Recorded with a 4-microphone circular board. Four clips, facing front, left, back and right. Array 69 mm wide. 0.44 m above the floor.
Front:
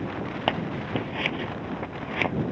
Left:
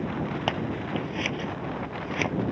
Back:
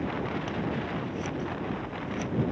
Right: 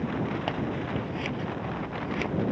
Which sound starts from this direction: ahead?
Scissors, at 0.5 s.